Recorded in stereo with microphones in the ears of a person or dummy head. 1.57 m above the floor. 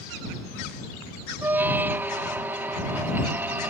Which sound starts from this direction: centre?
A squeak, at 1.4 s.